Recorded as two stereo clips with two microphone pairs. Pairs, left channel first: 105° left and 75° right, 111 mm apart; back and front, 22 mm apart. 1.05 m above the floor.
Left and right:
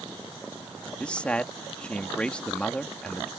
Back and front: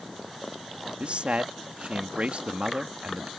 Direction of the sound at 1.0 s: 25° left.